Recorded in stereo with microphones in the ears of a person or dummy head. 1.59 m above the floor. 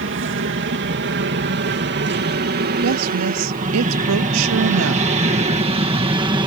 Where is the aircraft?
55° right (ahead or behind); by 6.5 s 25° right (ahead or behind).